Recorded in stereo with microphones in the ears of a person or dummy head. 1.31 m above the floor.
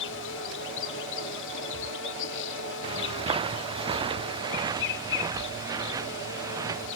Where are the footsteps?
30° right (ahead or behind); by 6.9 s 20° right (ahead or behind).